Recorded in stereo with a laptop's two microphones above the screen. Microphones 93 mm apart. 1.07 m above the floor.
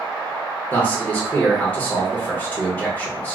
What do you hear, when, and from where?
0.7 s a man speaking: 15° left (ahead or behind), 0.9 m